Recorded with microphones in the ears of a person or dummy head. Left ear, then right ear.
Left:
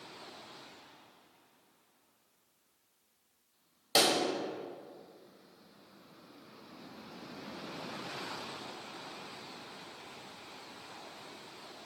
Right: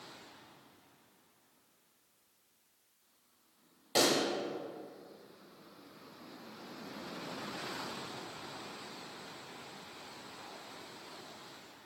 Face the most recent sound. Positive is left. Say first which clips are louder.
# left 2 dB
turn(degrees=30)  # may be behind; listen again after turning